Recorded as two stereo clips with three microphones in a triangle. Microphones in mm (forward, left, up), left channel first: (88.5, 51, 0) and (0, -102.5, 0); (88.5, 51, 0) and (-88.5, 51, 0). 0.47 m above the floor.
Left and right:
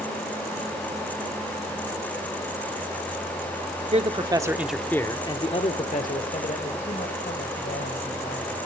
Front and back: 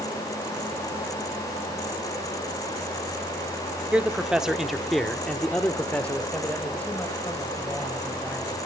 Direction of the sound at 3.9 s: 100° right.